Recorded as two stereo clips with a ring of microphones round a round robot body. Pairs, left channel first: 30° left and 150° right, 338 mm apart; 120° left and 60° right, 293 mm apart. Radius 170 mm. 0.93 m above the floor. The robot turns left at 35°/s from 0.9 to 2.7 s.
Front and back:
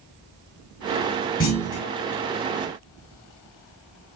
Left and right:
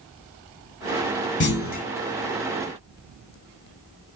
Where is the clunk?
75° left, 1.1 m; by 1.9 s 60° left, 1.1 m.